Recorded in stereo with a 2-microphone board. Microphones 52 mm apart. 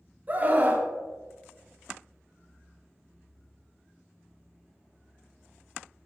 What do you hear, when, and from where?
0.3 s a scream: 35° right (ahead or behind), 2.5 m